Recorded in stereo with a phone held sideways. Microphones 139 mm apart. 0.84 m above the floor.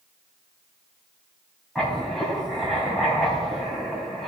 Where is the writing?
Centre (ahead or behind), 2.5 m.